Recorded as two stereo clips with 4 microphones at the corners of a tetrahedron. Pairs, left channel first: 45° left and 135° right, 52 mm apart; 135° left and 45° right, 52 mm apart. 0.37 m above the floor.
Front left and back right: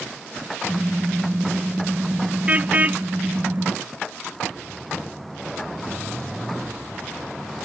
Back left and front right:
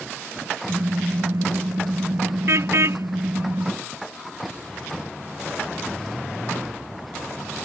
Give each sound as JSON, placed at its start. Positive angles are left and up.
{"t": 0.7, "sound": "a car horn", "azimuth_deg": -70}